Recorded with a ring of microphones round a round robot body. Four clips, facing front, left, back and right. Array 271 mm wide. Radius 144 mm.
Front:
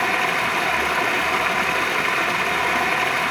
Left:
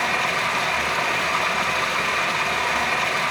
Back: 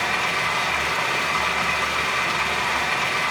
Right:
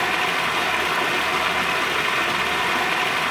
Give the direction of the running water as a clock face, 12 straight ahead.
1 o'clock.